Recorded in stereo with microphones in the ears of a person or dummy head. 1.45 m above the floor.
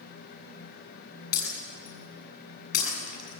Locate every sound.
1.3 s breaking glass: 65° left (ahead or behind), 8 m